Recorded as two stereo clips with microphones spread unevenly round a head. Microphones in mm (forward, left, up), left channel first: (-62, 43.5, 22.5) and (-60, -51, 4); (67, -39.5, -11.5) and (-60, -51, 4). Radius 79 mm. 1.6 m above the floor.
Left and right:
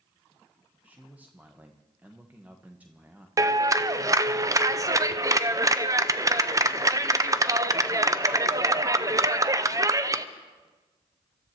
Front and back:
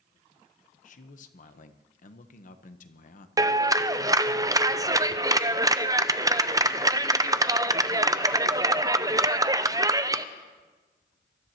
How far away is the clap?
About 0.5 m.